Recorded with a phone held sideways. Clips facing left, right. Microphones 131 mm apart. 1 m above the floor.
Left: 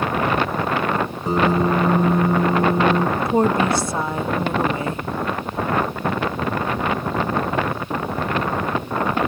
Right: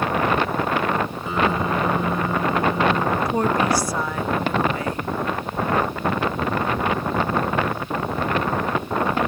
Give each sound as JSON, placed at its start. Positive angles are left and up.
{"t": 1.3, "sound": "a piano", "side_deg": 40}
{"t": 3.2, "sound": "a woman speaking", "side_deg": 25}